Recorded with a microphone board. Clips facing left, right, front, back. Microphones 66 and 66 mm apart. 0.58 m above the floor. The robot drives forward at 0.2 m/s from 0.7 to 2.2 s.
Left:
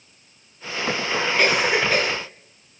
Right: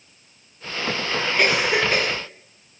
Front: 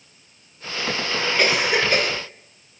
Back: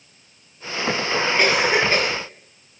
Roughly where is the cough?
Behind.